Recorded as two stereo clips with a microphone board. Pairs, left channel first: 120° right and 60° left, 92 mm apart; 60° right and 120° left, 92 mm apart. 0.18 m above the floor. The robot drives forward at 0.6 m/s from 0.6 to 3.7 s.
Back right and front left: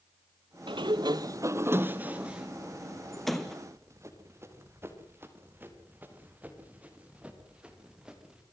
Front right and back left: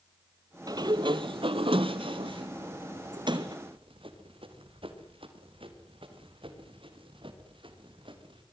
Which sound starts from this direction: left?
A sliding door, at 0.7 s.